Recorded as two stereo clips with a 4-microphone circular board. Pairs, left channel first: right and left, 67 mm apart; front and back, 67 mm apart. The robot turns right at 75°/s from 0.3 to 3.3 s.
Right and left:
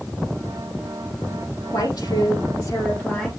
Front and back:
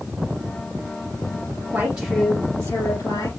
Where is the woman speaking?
125° right, 3.5 m; by 3.3 s straight ahead, 3.5 m.